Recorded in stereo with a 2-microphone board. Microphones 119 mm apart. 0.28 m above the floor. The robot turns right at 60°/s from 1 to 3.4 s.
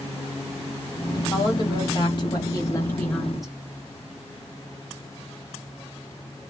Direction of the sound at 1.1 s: 45° left.